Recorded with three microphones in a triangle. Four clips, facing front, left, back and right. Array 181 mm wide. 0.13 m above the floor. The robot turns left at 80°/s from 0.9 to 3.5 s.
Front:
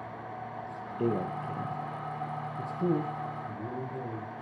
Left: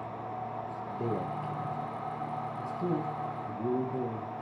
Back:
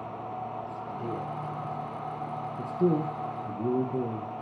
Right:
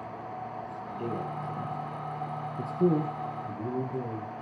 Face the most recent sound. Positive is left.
turn(degrees=175)